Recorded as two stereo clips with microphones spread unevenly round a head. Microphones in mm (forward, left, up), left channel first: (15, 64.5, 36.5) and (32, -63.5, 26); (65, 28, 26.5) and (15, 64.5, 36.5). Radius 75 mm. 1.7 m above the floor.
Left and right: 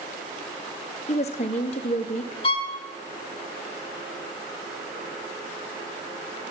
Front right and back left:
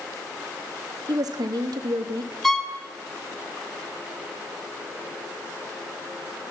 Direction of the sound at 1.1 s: 145° left.